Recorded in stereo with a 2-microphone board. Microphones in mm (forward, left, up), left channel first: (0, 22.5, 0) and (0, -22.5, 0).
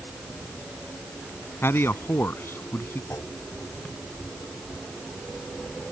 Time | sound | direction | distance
1.6 | a man speaking | 60° left (ahead or behind) | ?
3.1 | a clunk | 70° left (ahead or behind) | ?